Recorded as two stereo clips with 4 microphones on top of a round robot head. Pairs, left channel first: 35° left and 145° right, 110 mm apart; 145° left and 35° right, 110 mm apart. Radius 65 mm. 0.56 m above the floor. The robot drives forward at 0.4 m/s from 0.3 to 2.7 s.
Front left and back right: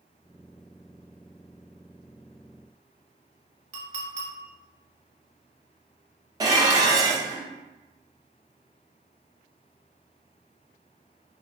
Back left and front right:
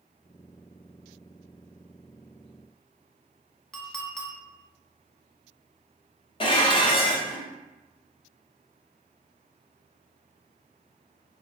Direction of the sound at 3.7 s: 130° right.